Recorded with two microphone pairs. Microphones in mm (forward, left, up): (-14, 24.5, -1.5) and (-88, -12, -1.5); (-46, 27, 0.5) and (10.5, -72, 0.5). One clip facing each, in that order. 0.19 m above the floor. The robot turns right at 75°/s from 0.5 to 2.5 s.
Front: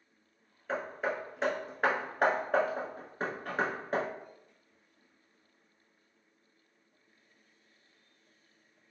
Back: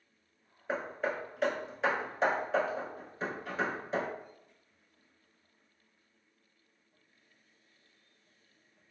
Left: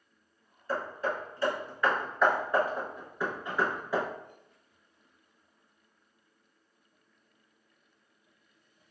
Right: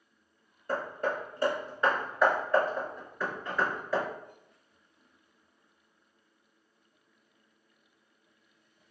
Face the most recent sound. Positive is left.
turn(degrees=45)